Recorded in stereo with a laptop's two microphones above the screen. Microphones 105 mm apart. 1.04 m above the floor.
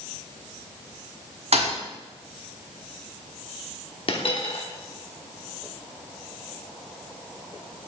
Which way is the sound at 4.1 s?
55° left (ahead or behind).